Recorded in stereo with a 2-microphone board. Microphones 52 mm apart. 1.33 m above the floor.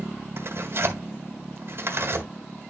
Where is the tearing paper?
55° right (ahead or behind), 1.9 m.